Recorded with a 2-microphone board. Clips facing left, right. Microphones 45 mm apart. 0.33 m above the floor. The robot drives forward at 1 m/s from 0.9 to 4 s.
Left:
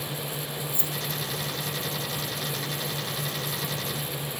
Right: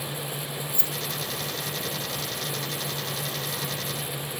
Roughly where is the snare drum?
I don't hear a snare drum.